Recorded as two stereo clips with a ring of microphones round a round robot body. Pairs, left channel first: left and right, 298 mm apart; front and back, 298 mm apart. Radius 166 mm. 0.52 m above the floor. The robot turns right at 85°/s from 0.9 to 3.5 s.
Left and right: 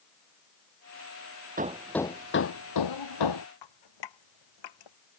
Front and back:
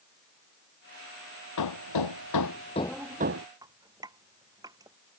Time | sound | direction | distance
1.6 | hammering | 30° right | ?
3.6 | dripping | 100° left | ?